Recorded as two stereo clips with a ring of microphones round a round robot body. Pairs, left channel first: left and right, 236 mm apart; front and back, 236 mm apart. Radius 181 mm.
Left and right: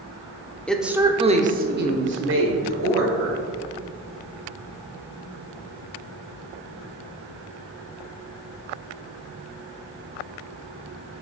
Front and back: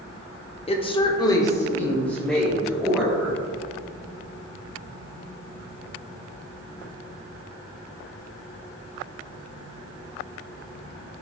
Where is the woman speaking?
10° left, 1.0 m; by 3.4 s 95° right, 2 m.